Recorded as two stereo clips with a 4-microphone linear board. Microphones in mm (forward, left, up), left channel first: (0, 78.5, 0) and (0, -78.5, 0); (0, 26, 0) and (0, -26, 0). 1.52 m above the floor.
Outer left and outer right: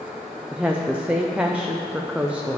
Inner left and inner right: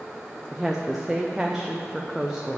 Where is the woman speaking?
10° right (ahead or behind), 0.7 m.